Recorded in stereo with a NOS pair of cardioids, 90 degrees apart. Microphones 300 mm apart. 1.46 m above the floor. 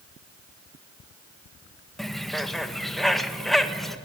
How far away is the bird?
About 1.6 m.